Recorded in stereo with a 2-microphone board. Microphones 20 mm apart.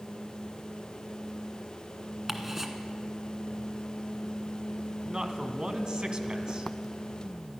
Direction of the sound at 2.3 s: 15° right (ahead or behind).